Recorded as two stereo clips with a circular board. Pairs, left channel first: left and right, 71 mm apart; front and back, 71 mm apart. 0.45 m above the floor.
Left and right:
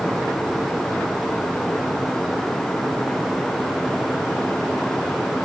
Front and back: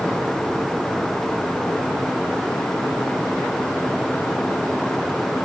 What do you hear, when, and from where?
Only background noise.